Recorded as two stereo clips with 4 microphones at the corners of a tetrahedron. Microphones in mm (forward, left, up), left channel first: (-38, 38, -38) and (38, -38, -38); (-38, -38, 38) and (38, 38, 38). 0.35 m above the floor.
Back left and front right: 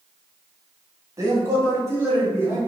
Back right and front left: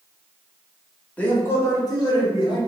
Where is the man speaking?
70° right, 1.1 m; by 2.6 s 110° right, 1.6 m.